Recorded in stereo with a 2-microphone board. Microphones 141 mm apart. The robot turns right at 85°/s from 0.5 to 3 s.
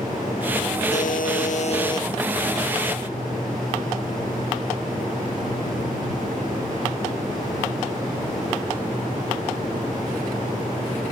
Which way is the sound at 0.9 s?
60° left.